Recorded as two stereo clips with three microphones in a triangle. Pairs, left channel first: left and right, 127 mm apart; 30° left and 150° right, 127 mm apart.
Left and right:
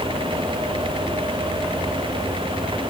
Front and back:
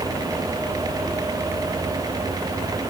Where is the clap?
No clap in this recording.